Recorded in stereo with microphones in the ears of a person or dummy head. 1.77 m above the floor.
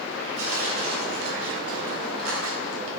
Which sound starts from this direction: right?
Tearing paper, at 0.4 s.